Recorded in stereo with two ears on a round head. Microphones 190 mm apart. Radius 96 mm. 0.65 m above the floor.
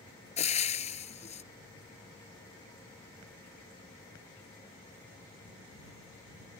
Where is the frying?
35° left (ahead or behind).